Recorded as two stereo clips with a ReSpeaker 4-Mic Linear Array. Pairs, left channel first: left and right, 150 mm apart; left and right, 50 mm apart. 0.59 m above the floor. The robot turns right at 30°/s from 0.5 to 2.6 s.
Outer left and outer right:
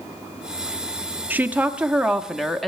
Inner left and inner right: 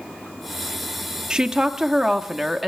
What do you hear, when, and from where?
1.3 s a woman speaking: 15° right (ahead or behind), 0.7 m; by 2.7 s centre (ahead or behind), 0.7 m